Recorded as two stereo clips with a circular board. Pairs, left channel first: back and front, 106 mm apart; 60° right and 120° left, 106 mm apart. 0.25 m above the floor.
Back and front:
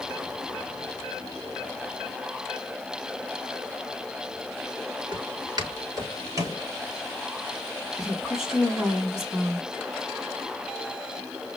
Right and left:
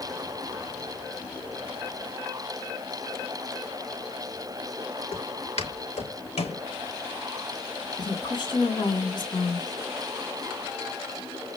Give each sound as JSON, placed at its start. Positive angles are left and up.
{"t": 5.1, "sound": "footsteps", "azimuth_deg": -45, "distance_m": 4.0}
{"t": 8.0, "sound": "a woman speaking", "azimuth_deg": -85, "distance_m": 1.8}